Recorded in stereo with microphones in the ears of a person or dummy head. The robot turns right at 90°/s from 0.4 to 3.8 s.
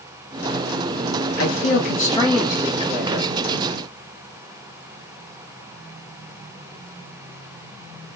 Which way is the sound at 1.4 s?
85° left.